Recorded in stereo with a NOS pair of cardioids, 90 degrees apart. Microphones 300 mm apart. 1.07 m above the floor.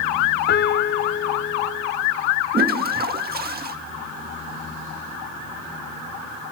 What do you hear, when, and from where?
0.5 s a piano: 35° left, 1.2 m
2.5 s a toilet flushing: 30° right, 1.8 m